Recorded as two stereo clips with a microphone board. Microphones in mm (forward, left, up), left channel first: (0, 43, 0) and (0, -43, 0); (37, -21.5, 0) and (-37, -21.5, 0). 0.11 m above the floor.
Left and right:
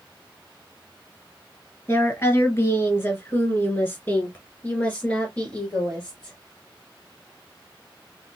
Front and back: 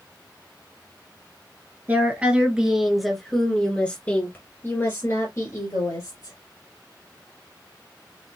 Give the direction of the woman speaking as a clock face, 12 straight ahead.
8 o'clock.